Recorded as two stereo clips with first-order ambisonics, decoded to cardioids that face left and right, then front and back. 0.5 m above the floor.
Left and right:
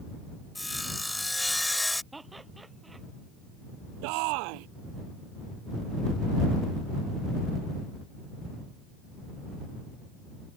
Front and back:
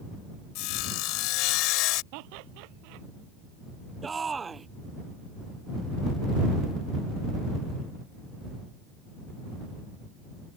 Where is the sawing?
5° left.